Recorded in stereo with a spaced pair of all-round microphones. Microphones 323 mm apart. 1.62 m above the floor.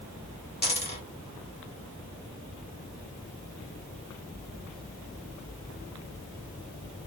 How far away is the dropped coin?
About 1.9 m.